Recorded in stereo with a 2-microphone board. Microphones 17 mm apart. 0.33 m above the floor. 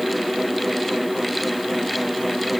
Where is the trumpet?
I don't hear a trumpet.